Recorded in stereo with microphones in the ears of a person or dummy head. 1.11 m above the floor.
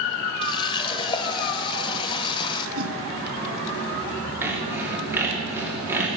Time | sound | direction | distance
0.4 | a running tap | 30° left (ahead or behind) | 0.7 m
2.8 | a whoosh | 50° right (ahead or behind) | 1.6 m
4.4 | sawing | 15° right (ahead or behind) | 2.5 m